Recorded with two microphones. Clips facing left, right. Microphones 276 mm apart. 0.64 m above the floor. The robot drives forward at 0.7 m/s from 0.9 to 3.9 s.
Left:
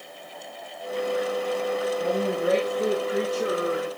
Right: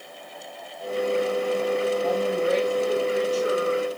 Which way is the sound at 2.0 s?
70° left (ahead or behind).